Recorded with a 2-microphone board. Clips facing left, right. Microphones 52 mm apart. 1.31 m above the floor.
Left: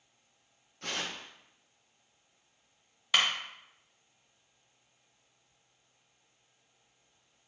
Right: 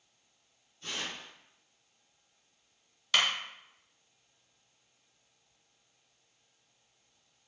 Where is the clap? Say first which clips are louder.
Even; 10° left (ahead or behind), 0.8 m.